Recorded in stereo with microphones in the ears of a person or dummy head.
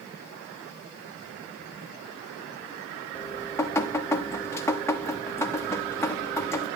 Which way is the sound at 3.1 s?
10° left (ahead or behind).